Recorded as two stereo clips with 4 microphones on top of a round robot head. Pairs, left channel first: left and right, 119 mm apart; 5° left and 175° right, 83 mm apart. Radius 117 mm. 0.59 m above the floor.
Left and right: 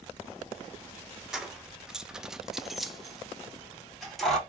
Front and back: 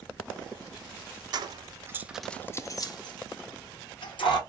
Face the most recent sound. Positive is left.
turn(degrees=0)